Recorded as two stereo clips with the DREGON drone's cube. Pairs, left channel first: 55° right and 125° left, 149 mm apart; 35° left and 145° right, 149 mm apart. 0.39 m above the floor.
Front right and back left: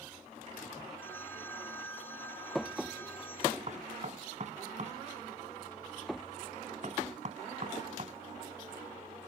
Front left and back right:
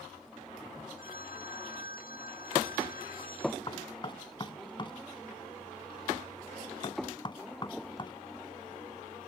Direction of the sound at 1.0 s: 20° left.